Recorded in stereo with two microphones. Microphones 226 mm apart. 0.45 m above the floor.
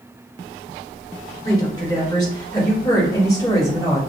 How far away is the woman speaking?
About 1.6 m.